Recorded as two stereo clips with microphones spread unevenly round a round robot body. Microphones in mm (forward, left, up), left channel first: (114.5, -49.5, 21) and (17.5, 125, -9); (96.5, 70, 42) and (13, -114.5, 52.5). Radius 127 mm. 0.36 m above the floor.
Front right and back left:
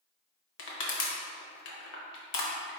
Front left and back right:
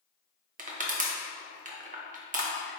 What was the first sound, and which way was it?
Crushing, 70° right.